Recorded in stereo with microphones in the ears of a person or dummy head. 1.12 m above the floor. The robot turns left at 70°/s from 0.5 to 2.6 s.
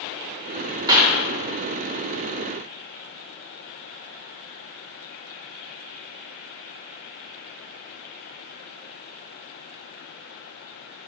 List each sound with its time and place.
0.9 s a clap: 25° right (ahead or behind), 1.3 m; by 1.2 s 5° right (ahead or behind), 1.3 m